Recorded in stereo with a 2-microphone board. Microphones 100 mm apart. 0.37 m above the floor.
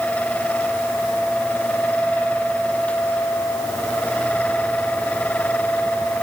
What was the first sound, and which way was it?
Only background noise.